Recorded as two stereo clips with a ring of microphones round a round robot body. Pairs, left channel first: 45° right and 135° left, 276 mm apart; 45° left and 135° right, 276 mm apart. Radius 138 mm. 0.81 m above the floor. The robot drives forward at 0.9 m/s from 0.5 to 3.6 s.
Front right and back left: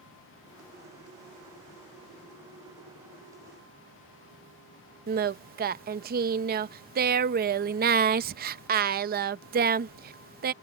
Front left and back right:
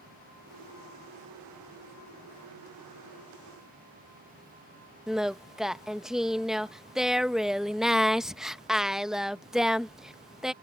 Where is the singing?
140° left.